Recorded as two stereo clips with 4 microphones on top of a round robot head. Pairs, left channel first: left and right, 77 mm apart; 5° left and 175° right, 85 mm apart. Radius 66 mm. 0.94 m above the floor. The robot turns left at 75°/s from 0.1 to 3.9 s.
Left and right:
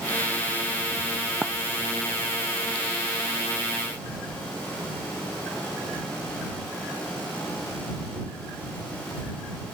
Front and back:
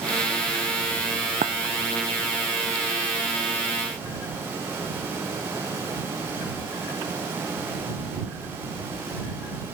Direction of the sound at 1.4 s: Straight behind.